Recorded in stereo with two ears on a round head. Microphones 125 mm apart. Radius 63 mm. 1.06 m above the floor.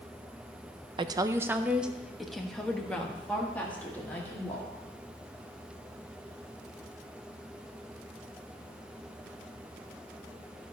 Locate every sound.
1.0 s a woman speaking: 35° right (ahead or behind), 0.5 m; by 4.7 s 15° left (ahead or behind), 2 m